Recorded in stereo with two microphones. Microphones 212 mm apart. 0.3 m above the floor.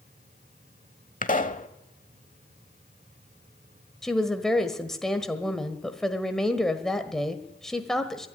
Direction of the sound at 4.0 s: Centre (ahead or behind).